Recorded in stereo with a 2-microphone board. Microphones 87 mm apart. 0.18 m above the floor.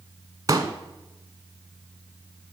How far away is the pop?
About 0.7 m.